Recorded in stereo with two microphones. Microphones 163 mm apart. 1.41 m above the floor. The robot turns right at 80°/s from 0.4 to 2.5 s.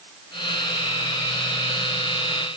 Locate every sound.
Only background noise.